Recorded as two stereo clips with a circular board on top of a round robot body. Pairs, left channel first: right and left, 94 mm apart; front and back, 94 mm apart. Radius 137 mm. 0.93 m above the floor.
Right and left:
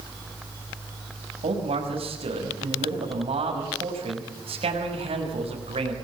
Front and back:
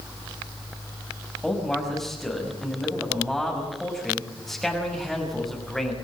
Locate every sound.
1.4 s a man speaking: 85° left, 6 m